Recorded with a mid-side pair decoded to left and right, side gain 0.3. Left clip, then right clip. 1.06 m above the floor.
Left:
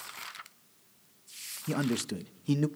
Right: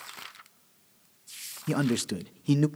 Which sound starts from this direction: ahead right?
A man speaking, at 1.7 s.